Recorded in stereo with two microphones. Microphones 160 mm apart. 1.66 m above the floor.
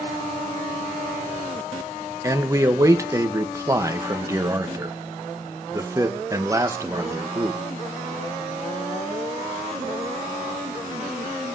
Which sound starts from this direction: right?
A man speaking, at 2.2 s.